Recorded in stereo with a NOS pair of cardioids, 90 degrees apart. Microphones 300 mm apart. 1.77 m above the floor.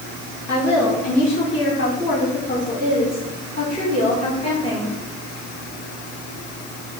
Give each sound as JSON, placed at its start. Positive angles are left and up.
{"t": 0.5, "sound": "a woman speaking", "azimuth_deg": 45, "distance_m": 4.0}